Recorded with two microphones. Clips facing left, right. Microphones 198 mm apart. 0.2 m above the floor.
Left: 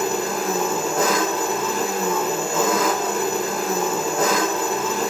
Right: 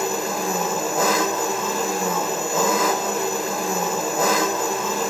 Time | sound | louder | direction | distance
0.0 | an engine running | left 1 dB | 5° right (ahead or behind) | 1.3 m